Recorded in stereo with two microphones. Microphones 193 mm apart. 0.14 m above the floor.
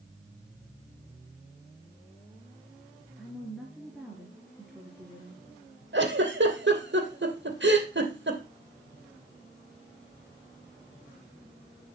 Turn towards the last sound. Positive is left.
turn(degrees=-70)  # may be behind; listen again after turning